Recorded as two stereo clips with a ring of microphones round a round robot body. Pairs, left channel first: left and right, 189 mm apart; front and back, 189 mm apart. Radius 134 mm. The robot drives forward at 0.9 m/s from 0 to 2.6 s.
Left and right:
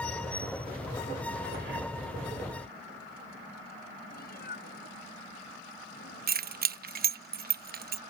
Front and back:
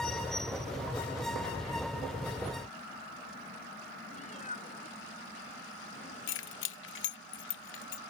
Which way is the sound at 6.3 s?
45° right.